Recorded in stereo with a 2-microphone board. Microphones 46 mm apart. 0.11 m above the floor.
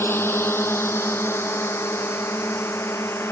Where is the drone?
65° left (ahead or behind); by 3.3 s 75° left (ahead or behind).